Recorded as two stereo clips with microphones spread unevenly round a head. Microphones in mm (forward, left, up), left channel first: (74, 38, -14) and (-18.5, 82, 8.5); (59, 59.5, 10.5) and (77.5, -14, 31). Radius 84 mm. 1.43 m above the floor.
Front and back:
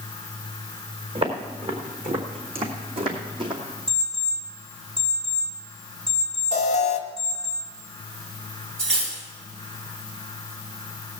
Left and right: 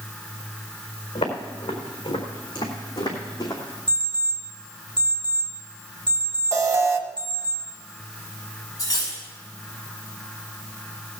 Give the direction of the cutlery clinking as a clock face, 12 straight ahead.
6 o'clock.